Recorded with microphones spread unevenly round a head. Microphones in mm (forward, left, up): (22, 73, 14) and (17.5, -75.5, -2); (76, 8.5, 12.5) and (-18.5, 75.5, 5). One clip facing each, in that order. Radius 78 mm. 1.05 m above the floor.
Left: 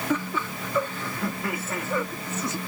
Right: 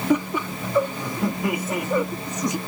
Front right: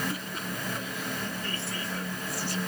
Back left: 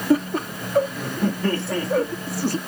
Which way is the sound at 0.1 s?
165° right.